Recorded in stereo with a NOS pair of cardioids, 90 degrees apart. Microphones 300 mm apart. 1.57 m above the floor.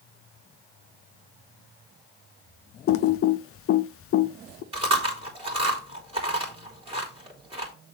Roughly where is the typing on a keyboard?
Ahead left.